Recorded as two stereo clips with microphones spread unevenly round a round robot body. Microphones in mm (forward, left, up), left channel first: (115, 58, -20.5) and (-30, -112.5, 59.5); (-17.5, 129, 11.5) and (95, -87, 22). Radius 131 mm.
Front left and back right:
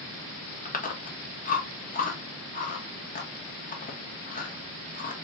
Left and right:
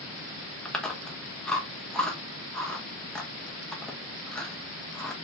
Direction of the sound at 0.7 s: 35° left.